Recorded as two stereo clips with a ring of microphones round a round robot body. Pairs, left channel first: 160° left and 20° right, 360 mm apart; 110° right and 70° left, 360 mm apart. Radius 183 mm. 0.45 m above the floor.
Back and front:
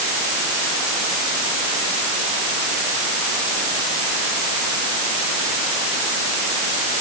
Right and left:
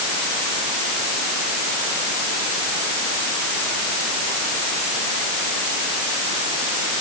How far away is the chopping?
No chopping in this recording.